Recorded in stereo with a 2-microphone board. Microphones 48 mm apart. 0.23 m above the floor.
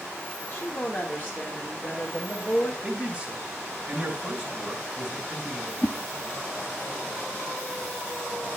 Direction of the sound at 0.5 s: 35° left (ahead or behind).